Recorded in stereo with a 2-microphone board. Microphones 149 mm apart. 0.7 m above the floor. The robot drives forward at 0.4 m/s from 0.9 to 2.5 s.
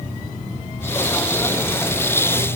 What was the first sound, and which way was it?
Only background noise.